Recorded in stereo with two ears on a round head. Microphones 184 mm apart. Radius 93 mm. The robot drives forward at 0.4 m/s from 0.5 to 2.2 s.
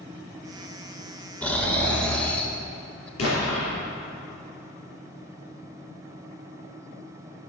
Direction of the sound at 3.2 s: 85° left.